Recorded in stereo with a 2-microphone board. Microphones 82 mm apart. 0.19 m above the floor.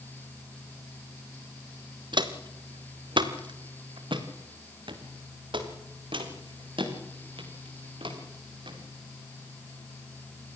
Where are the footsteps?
65° right (ahead or behind), 2 m; by 8.8 s 80° right, 5.5 m.